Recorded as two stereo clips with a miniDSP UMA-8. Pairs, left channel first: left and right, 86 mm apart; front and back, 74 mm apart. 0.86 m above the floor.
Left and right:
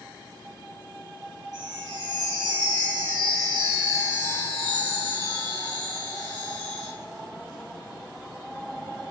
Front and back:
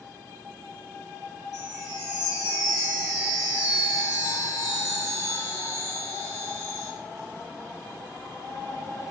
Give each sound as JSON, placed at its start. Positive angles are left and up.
{"t": 1.5, "sound": "a chime", "azimuth_deg": -45, "distance_m": 1.4}